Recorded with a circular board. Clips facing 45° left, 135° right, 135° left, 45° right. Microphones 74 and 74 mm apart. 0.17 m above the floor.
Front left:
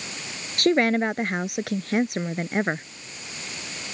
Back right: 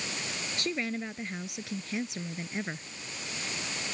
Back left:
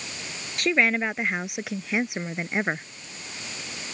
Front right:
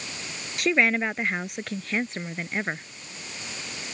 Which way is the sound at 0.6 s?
45° left.